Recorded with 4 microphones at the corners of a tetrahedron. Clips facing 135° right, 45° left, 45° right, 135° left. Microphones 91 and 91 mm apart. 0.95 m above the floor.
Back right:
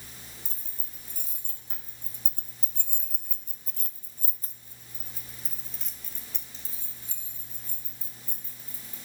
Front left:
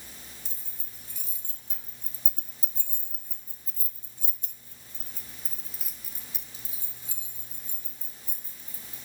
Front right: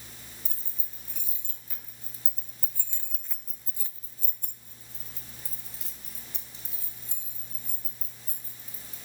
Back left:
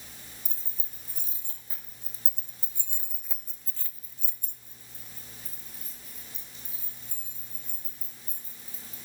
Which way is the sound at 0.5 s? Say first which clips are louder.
Back right 1 dB, even; 175° right.